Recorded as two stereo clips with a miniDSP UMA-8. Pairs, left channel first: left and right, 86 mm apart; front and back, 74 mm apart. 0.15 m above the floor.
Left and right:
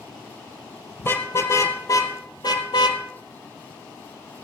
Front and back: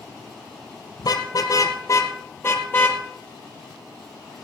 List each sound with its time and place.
1.0 s a car horn: 30° left, 2 m; by 3.0 s 65° left, 2.0 m